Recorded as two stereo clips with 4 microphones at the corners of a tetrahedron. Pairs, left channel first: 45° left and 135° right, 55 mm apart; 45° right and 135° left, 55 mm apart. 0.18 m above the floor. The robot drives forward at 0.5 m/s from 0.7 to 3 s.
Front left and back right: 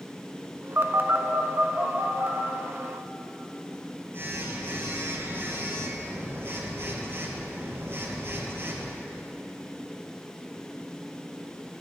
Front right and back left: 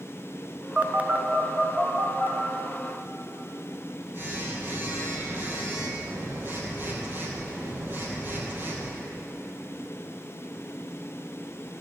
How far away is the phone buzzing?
About 0.6 m.